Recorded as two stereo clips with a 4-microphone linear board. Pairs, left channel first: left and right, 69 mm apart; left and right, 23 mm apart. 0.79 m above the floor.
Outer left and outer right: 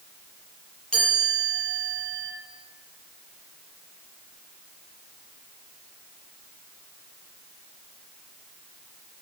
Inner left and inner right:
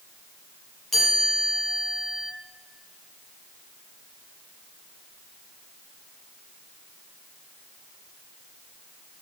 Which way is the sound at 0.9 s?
15° left (ahead or behind).